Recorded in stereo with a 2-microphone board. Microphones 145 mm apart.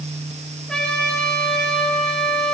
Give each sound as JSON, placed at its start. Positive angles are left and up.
{"t": 0.7, "sound": "a trumpet", "side_deg": 5, "distance_m": 6.5}